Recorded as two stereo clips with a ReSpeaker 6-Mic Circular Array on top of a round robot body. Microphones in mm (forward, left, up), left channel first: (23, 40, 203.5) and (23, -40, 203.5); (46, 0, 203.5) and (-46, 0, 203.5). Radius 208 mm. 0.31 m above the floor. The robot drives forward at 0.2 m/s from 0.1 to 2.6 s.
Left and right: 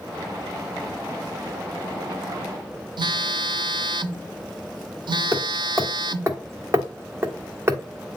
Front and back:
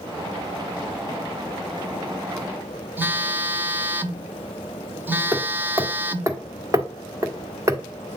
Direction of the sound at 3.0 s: 110° right.